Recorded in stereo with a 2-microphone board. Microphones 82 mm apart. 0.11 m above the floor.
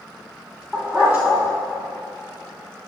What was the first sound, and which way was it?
A dog barking, 20° right (ahead or behind).